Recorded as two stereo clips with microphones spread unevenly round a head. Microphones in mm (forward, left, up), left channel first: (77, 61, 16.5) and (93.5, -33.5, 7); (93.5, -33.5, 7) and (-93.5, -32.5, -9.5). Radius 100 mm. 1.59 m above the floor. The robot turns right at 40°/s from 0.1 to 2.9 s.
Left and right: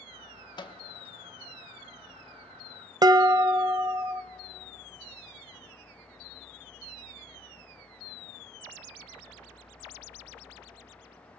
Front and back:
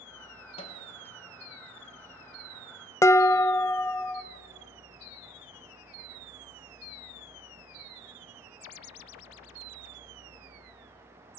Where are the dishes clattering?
60° right, 0.7 m.